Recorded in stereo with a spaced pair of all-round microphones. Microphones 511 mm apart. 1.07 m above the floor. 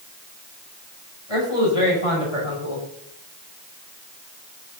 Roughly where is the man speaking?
Left.